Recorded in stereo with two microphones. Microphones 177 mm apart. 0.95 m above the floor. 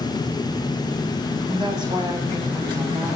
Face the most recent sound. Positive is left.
turn(degrees=-25)  # may be behind; listen again after turning